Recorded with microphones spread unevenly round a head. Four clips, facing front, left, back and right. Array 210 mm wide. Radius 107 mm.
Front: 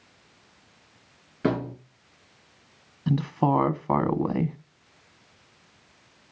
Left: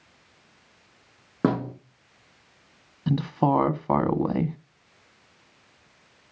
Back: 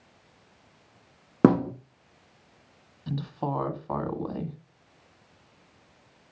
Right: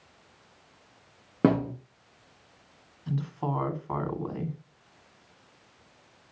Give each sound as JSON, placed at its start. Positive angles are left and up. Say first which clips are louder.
{"t": 1.4, "sound": "a thud", "louder": "right 1 dB, back 6 dB", "azimuth_deg": 180, "distance_m": 5.5}
{"t": 3.1, "sound": "a woman speaking", "louder": "left 9 dB, front 8 dB", "azimuth_deg": 55, "distance_m": 1.9}